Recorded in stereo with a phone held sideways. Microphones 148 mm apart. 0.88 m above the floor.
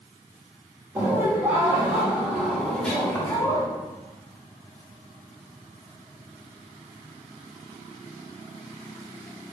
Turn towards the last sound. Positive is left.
turn(degrees=25)  # may be behind; listen again after turning